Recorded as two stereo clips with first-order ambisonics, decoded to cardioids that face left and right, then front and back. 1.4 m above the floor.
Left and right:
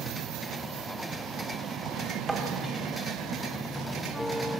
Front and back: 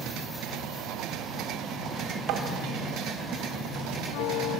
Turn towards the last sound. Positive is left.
turn(degrees=-170)